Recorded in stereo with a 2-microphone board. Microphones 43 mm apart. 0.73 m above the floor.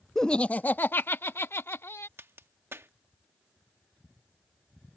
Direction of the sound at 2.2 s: 60° right (ahead or behind).